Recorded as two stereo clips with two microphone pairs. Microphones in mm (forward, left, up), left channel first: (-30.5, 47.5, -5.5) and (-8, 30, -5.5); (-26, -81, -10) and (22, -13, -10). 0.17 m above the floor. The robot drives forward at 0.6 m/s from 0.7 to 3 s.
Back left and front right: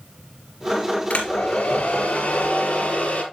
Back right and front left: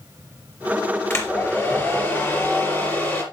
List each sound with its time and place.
1.1 s a hair dryer: straight behind, 3.5 m